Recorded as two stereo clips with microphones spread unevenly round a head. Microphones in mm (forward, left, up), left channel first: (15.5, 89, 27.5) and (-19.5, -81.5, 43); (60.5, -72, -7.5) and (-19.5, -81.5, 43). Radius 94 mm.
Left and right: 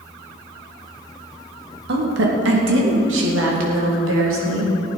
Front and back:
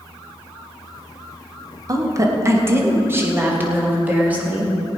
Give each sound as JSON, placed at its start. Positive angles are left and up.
{"t": 1.9, "sound": "a woman speaking", "azimuth_deg": -130, "distance_m": 2.0}